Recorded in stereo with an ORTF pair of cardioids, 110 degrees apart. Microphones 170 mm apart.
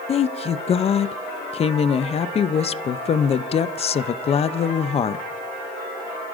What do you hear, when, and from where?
0.1 s a woman speaking: 40° left, 0.6 m